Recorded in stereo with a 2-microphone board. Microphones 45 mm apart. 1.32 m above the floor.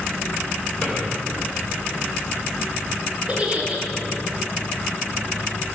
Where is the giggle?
30° right (ahead or behind), 2 m.